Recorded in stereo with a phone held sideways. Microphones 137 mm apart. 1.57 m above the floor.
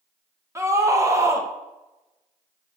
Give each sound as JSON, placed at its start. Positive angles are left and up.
{"t": 0.6, "sound": "a scream", "side_deg": -20, "distance_m": 2.0}